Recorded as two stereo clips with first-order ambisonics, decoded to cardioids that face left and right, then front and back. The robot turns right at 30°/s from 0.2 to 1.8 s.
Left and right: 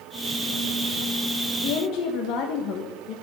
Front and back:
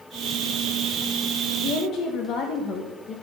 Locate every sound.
1.6 s a woman speaking: 50° left, 1.3 m; by 3.1 s 55° left, 1.3 m